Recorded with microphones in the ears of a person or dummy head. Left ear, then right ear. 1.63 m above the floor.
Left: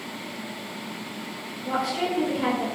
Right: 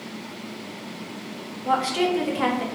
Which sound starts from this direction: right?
A woman speaking, at 1.6 s.